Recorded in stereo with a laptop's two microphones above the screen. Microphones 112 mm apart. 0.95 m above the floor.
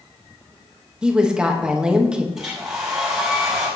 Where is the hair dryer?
5° right (ahead or behind), 4.5 m.